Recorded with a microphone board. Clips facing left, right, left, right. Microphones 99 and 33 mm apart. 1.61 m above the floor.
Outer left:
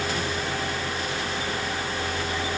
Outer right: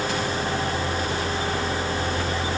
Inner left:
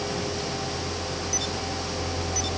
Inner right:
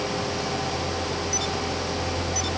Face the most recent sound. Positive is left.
No sound to turn to.